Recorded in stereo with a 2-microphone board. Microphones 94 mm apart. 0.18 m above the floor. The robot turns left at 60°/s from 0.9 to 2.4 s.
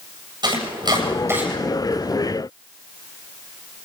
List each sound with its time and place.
0.4 s chopping: 50° right (ahead or behind), 7.5 m; by 1.5 s 20° right (ahead or behind), 7.5 m